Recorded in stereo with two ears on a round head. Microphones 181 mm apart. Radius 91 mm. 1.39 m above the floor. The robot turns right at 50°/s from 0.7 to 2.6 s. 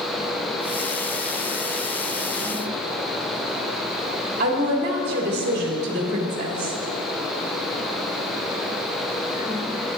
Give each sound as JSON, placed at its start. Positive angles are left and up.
{"t": 4.4, "sound": "a woman speaking", "side_deg": -50, "distance_m": 3.0}